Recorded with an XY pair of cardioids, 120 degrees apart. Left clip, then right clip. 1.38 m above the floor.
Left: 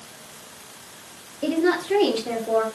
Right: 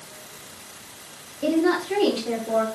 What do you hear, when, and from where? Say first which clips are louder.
1.4 s a woman speaking: even; 5° left, 8.5 m; by 2.6 s 15° left, 8 m